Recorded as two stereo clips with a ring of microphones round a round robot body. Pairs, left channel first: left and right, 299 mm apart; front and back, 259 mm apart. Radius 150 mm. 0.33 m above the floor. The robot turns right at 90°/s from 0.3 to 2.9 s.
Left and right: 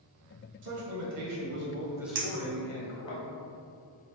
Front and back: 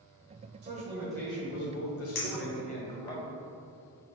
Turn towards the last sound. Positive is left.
turn(degrees=15)